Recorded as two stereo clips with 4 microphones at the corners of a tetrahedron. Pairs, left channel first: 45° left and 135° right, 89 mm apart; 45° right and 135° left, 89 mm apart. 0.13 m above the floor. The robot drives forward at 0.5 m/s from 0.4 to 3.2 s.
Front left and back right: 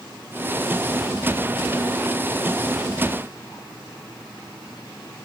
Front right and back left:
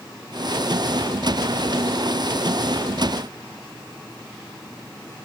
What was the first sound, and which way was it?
Only background noise.